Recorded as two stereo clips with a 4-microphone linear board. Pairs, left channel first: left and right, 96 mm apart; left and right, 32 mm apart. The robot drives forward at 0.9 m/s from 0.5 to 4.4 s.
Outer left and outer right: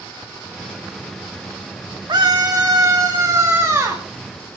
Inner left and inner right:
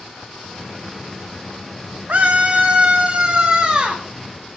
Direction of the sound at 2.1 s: 50° right (ahead or behind).